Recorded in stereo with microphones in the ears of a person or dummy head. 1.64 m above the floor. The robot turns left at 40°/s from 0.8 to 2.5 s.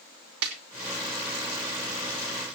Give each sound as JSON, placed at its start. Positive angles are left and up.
{"t": 0.4, "sound": "a snare drum", "side_deg": -80, "distance_m": 3.0}